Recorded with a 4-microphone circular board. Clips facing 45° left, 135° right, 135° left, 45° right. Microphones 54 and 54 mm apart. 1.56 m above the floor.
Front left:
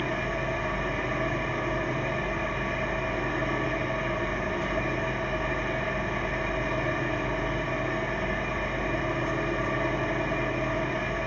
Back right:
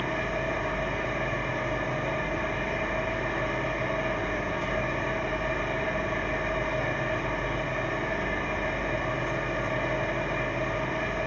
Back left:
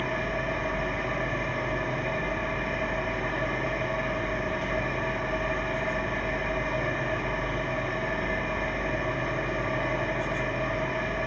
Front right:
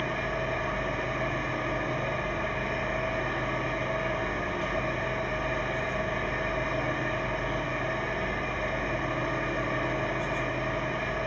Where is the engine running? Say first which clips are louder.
Even, back left 1 dB; 40° left, 1.7 m.